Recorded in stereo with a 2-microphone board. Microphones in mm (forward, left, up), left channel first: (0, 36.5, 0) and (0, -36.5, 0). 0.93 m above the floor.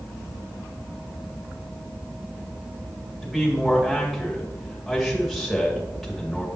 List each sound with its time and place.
3.2 s a man speaking: centre (ahead or behind), 2.0 m